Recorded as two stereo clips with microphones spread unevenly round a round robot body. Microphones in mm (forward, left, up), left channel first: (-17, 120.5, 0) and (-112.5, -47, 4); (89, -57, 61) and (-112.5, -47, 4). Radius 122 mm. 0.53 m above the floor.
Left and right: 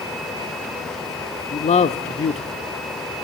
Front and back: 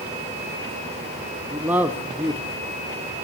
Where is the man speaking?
110° left, 1.0 m.